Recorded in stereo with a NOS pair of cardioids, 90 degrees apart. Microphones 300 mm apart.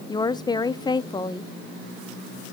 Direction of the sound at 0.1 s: 15° left.